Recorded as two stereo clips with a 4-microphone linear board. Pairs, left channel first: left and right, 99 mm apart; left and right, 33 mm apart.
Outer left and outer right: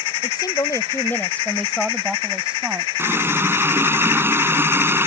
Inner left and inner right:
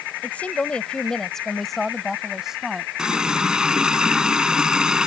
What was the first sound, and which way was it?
A woman speaking, 50° left (ahead or behind).